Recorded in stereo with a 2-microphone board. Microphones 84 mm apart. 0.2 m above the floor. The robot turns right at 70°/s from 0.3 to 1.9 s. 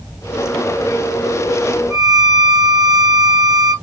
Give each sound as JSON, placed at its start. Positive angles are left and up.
{"t": 1.9, "sound": "a violin", "side_deg": -35, "distance_m": 1.4}